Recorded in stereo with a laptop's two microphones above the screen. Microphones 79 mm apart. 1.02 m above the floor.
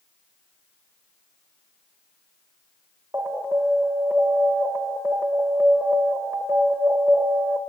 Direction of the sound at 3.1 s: 35° right (ahead or behind).